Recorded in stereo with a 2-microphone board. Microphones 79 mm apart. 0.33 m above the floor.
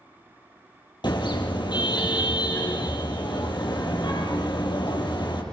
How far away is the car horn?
About 5 m.